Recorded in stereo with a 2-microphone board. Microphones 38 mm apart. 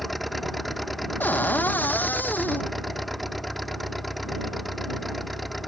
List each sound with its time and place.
0.0 s an engine running: centre (ahead or behind)
1.2 s a cupboard door: 50° left (ahead or behind)